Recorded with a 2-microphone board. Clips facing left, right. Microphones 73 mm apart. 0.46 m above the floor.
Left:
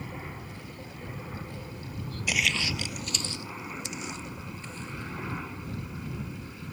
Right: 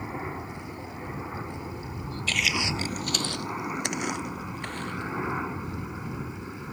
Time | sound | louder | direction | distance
0.0 | a helicopter | right 6 dB | 30° right (ahead or behind) | ?
2.3 | footsteps | right 1 dB | 15° left (ahead or behind) | ?